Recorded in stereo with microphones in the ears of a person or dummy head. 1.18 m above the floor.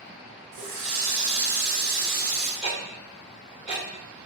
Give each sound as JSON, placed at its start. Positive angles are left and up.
{"t": 0.5, "sound": "a running tap", "side_deg": -45, "distance_m": 0.7}
{"t": 2.6, "sound": "ticking", "side_deg": -35, "distance_m": 2.0}